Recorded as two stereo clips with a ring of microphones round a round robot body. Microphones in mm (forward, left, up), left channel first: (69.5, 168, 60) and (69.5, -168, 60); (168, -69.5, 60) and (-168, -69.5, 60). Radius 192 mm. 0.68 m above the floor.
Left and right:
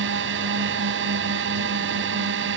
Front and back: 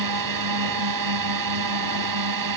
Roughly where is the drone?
Behind right.